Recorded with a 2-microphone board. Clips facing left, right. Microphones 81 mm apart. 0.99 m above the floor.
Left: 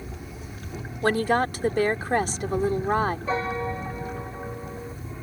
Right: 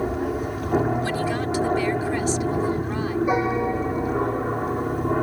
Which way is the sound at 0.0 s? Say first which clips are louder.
Right 15 dB; 65° right (ahead or behind).